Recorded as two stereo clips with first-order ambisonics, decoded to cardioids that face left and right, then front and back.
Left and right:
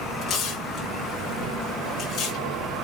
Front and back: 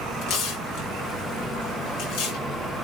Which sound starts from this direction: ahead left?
Tearing paper, at 0.2 s.